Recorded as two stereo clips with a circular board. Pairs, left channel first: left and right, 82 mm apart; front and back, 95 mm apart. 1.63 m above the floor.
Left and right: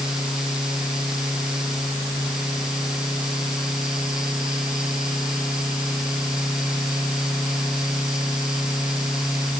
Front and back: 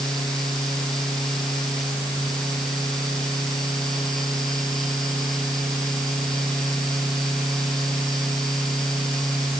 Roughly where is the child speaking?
I don't hear a child speaking.